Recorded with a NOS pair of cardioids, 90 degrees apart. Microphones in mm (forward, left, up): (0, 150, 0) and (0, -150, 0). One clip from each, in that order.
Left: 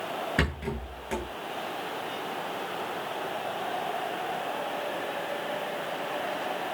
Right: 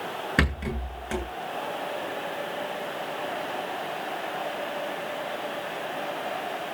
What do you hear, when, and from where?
0.4 s a rattle: 30° right, 8 m